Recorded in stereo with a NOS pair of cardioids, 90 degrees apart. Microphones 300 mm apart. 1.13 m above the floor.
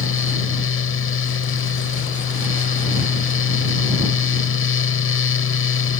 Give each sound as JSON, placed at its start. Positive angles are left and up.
{"t": 0.0, "sound": "a fan", "azimuth_deg": 40}